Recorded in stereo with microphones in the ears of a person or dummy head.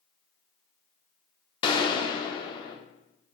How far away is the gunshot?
About 0.5 m.